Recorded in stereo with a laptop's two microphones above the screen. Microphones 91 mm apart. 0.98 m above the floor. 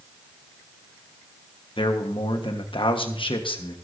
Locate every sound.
1.8 s a man speaking: 70° left (ahead or behind), 1.2 m